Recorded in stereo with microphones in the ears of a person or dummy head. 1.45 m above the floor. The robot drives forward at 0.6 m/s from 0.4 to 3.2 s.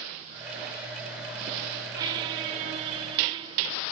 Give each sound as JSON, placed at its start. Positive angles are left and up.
{"t": 1.9, "sound": "a squeak", "side_deg": -20}